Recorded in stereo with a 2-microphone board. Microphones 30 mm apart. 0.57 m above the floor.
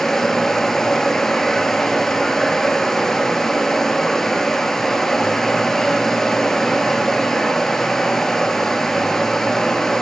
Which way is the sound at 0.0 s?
15° left (ahead or behind).